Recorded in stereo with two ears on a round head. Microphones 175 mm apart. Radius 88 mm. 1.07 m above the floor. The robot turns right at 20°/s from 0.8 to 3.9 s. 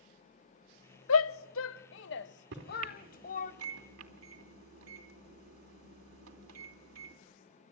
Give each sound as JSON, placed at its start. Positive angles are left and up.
{"t": 1.1, "sound": "a shout", "side_deg": 80, "distance_m": 0.9}
{"t": 2.5, "sound": "a microwave", "side_deg": -70, "distance_m": 3.0}